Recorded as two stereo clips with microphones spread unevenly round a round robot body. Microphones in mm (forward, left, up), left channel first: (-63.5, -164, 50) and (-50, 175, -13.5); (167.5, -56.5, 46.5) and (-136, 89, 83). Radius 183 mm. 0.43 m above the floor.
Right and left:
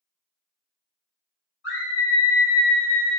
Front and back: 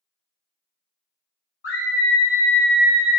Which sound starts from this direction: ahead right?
A scream, at 1.6 s.